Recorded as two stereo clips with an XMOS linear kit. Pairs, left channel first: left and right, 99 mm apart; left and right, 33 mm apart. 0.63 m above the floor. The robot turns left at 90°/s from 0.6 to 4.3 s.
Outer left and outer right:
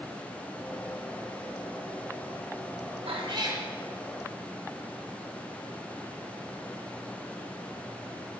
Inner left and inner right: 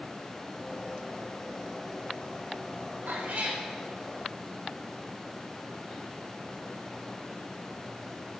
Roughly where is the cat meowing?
Right.